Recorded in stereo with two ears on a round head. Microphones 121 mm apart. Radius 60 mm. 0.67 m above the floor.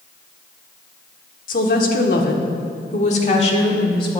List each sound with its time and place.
1.5 s a woman speaking: 65° left (ahead or behind), 1.6 m; by 4.2 s 35° left (ahead or behind), 1.9 m